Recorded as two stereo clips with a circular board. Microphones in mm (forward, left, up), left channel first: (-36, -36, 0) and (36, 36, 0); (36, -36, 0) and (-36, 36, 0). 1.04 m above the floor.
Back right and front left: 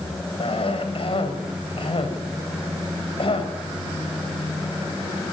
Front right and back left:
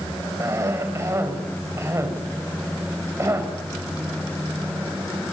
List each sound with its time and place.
0.4 s a cough: 160° right, 5 m